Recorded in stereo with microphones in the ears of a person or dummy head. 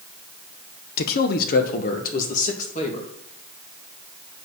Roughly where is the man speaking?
Left.